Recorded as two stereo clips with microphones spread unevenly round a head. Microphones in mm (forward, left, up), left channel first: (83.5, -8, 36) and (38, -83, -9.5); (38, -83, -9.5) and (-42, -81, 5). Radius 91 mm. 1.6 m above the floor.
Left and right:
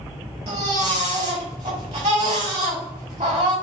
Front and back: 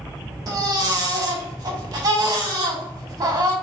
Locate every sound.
0.5 s a baby crying: straight behind, 1.3 m